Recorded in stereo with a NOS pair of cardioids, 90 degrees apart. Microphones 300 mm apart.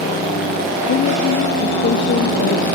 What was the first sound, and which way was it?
A woman speaking, 45° left.